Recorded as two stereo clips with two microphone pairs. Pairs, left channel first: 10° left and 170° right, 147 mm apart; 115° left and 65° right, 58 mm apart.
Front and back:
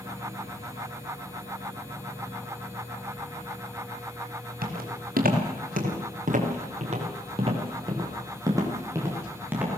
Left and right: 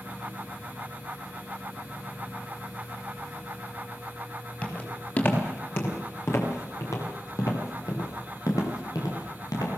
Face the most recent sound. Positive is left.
turn(degrees=110)